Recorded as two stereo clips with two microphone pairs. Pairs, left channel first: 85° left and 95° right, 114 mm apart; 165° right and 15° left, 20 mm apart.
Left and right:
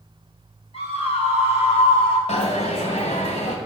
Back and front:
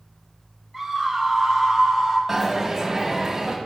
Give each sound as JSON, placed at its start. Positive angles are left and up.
{"t": 0.7, "sound": "a scream", "azimuth_deg": 105, "distance_m": 3.5}
{"t": 2.3, "sound": "a dropped coin", "azimuth_deg": 80, "distance_m": 2.0}